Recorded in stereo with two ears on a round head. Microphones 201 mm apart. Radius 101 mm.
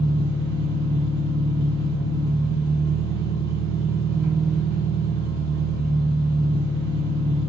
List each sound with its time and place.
0.0 s an engine running: 65° left (ahead or behind), 2 m